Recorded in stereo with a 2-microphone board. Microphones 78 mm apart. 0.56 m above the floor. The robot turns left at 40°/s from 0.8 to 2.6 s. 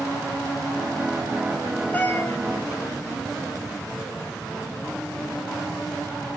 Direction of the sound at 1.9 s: 25° left (ahead or behind).